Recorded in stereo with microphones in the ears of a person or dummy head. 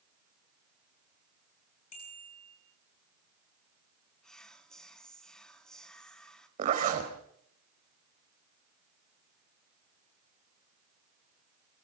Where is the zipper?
45° right (ahead or behind), 3.5 m.